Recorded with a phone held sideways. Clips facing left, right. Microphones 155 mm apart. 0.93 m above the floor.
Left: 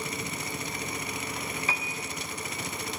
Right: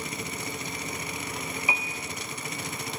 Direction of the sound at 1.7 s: 15° right (ahead or behind).